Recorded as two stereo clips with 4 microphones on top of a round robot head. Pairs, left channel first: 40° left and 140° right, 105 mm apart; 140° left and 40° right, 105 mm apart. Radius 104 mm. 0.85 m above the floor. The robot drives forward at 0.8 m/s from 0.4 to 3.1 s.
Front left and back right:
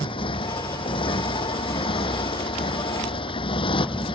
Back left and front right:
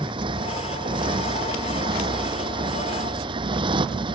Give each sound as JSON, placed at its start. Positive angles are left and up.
{"t": 0.0, "sound": "a motorcycle", "azimuth_deg": 0}